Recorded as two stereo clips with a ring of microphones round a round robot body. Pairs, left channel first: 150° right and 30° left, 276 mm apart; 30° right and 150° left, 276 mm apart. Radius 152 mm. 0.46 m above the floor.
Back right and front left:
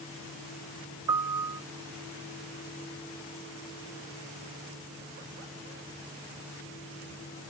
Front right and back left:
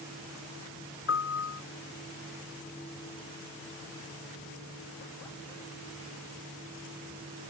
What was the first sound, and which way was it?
A piano, 15° left.